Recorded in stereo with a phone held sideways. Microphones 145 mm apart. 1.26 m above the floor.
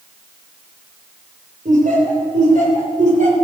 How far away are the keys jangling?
No keys jangling in this recording.